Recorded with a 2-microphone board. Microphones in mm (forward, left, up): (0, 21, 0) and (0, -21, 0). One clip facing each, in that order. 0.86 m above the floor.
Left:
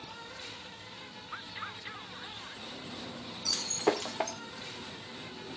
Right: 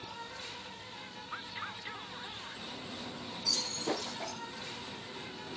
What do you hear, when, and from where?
0.0 s an insect: 5° left (ahead or behind), 1.6 m
3.5 s breaking glass: 70° left (ahead or behind), 1.3 m